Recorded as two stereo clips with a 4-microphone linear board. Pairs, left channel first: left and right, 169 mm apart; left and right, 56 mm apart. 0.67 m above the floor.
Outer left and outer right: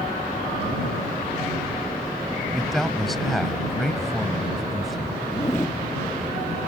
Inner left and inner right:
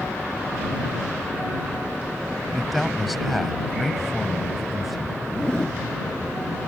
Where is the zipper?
15° left (ahead or behind).